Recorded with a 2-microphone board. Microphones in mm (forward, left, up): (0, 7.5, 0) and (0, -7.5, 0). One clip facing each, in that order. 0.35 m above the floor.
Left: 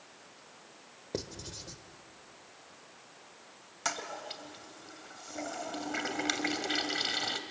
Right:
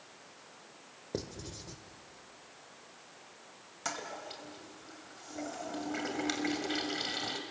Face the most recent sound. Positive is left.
turn(degrees=20)  # may be behind; listen again after turning